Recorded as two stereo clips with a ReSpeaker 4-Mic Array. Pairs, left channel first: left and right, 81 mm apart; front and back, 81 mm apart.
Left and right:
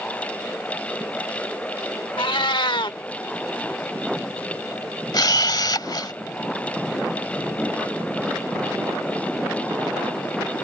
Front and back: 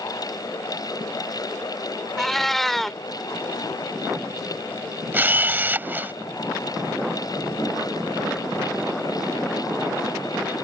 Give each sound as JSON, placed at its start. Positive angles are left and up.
{"t": 2.2, "sound": "a cat meowing", "azimuth_deg": 85}
{"t": 5.1, "sound": "a camera shutter", "azimuth_deg": 115}